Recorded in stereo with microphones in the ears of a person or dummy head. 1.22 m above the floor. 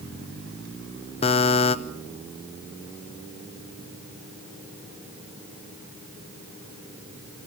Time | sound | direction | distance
1.2 | a buzzer | 30° left (ahead or behind) | 0.8 m